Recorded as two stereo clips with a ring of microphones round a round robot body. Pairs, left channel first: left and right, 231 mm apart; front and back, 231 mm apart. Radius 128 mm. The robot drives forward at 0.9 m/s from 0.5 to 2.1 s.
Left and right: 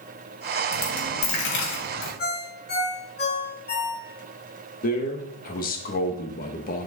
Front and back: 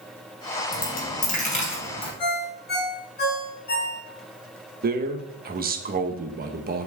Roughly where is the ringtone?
Ahead left.